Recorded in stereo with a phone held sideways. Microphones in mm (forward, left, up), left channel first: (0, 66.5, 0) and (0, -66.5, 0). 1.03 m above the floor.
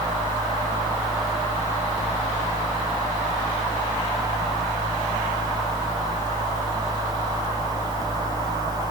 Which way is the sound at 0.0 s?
30° right (ahead or behind).